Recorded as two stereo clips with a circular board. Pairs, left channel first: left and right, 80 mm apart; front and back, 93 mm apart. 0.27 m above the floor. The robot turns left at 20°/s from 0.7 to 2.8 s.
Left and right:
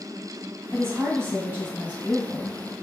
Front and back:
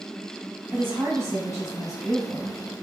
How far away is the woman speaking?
About 1.8 m.